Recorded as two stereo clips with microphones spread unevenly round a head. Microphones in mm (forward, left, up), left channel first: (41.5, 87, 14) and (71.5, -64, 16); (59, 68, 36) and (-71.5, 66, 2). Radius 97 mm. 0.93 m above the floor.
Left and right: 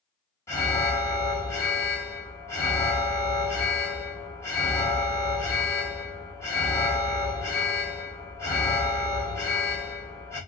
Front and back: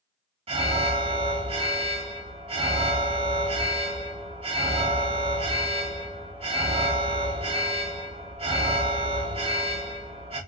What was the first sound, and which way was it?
An alarm, 175° left.